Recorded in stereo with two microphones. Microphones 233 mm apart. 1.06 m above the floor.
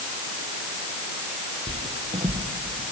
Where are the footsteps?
25° right (ahead or behind), 1.6 m; by 2.8 s 15° right (ahead or behind), 3 m.